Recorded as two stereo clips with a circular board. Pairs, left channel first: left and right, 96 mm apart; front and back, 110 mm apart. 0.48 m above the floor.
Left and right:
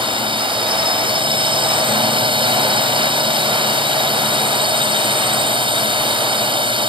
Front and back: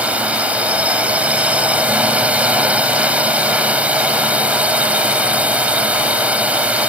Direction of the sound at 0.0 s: 105° right.